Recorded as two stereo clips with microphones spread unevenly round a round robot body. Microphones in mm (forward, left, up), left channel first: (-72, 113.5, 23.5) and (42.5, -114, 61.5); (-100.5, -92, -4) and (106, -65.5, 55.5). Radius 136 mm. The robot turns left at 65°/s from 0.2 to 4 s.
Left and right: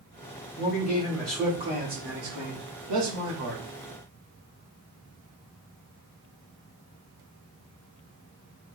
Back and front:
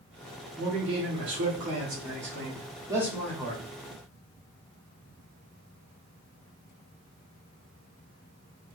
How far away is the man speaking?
About 1.9 m.